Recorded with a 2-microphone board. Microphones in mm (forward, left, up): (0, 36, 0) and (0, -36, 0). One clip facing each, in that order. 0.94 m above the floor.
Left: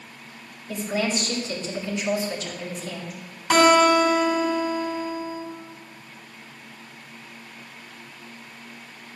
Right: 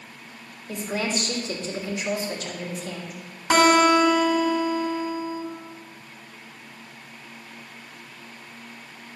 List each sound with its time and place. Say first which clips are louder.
0.7 s a woman speaking: left 2 dB; 45° right (ahead or behind), 3 m
3.5 s a guitar: left 1 dB; 30° right (ahead or behind), 3.5 m